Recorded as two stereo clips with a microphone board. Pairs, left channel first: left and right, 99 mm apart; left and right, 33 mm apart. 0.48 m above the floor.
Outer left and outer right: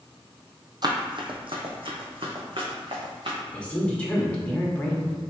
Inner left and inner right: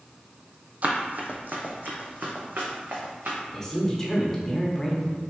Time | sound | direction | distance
0.8 | running footsteps | 45° right (ahead or behind) | 0.7 m
3.5 | a woman speaking | 10° left (ahead or behind) | 1.0 m